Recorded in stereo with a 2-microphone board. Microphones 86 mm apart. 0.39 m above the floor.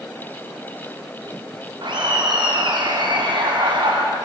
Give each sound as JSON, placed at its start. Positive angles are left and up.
{"t": 1.8, "sound": "laughter", "side_deg": -60, "distance_m": 4.5}